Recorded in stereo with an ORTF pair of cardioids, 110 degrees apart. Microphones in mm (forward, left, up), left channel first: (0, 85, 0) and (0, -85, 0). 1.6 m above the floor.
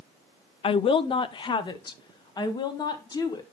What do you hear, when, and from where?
0.6 s a woman speaking: 35° left, 0.6 m; by 3.4 s 25° left, 2 m